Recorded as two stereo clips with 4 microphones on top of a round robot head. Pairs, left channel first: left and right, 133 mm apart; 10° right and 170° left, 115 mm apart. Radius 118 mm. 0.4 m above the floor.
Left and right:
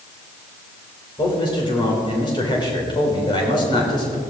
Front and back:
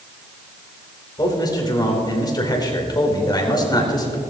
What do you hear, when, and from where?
1.2 s a man speaking: 35° left, 3.5 m